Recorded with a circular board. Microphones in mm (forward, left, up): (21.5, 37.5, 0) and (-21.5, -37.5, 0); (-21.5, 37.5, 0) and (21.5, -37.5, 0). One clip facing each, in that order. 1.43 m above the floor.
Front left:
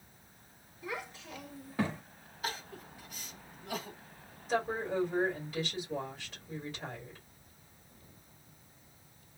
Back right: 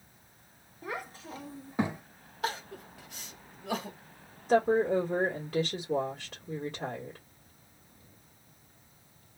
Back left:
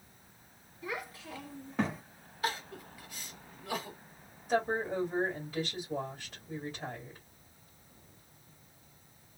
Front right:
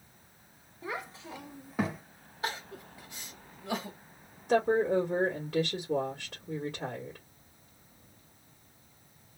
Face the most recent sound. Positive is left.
turn(degrees=-90)